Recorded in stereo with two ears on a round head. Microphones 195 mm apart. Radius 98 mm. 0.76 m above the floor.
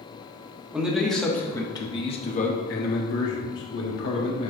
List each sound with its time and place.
0.7 s a man speaking: 5° right (ahead or behind), 1.4 m; by 4.5 s 60° left (ahead or behind), 1.7 m